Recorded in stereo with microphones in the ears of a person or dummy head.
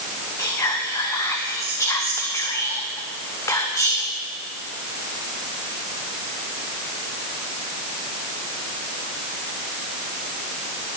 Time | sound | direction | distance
0.4 | whispering | 20° left (ahead or behind) | 0.7 m